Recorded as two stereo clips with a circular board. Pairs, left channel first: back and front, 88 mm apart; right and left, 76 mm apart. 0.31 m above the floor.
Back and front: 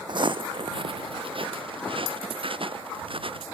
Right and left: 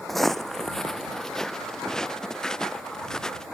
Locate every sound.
0.1 s footsteps: straight ahead; by 3.5 s 5° right